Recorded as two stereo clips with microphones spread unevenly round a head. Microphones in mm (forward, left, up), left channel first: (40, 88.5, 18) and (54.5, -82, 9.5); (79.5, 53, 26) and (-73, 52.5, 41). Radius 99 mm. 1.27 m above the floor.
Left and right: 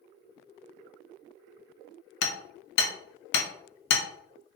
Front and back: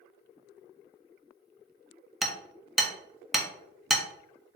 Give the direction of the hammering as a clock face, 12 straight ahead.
9 o'clock.